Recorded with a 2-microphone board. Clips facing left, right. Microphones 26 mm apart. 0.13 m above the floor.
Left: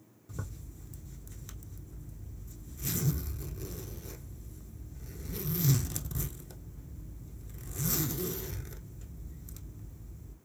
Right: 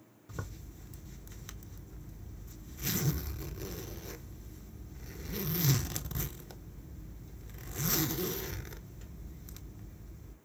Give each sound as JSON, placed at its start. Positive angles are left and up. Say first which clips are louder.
{"t": 0.3, "sound": "a zipper", "louder": "even", "side_deg": -25, "distance_m": 0.6}